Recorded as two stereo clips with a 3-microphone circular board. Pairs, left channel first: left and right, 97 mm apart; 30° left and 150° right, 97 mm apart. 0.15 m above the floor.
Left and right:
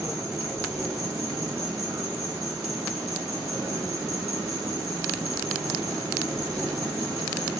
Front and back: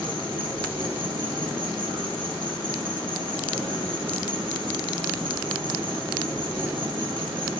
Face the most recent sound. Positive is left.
turn(degrees=-140)